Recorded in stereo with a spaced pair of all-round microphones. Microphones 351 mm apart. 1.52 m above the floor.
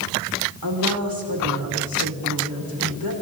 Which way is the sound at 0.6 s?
75° right (ahead or behind).